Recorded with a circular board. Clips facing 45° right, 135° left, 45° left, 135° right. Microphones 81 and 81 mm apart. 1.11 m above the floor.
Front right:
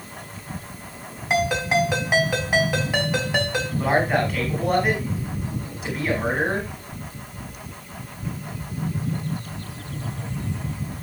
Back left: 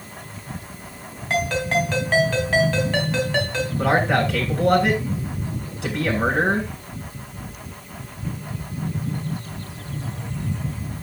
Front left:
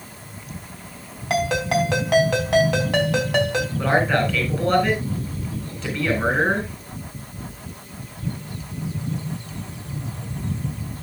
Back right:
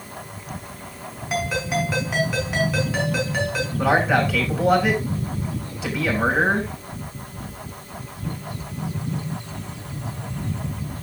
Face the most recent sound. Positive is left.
turn(degrees=145)